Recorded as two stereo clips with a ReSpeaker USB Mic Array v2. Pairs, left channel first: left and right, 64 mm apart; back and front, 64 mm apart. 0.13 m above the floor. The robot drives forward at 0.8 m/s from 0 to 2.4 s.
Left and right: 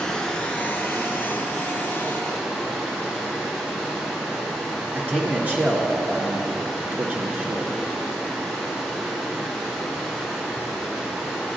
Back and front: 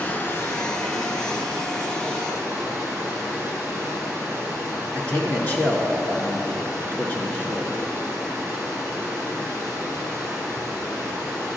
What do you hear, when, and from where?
0.0 s running water: 155° left, 0.8 m; by 11.6 s 175° left, 2.5 m
5.0 s a man speaking: 135° right, 1.5 m